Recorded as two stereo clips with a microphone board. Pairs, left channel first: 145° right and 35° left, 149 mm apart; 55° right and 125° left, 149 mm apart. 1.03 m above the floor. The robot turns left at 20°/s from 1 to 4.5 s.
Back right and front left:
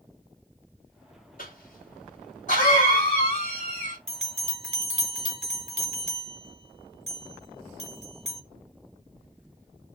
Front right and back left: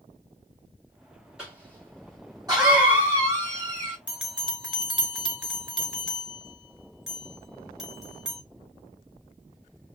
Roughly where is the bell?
Ahead left.